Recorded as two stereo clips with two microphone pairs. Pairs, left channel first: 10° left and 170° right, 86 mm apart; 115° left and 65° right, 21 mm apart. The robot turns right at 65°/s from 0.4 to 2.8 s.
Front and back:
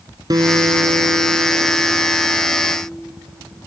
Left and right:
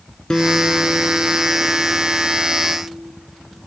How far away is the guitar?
About 0.8 m.